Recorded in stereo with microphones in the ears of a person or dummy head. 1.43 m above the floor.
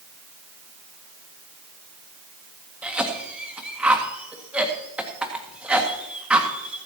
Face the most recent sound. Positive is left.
turn(degrees=-15)  # may be behind; listen again after turning